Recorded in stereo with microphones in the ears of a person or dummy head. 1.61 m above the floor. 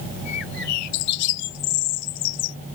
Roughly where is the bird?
Left.